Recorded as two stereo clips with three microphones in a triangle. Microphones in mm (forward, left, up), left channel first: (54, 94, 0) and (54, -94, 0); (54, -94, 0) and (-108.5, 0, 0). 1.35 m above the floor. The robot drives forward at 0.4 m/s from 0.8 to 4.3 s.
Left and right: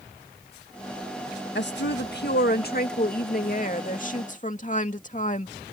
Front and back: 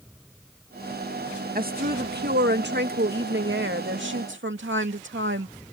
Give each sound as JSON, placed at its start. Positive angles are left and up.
{"t": 1.6, "sound": "a woman speaking", "azimuth_deg": 110}